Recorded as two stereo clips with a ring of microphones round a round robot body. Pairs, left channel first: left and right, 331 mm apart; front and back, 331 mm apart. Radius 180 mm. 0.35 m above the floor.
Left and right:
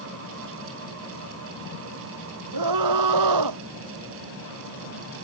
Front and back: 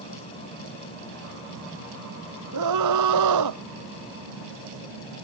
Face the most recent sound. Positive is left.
turn(degrees=-135)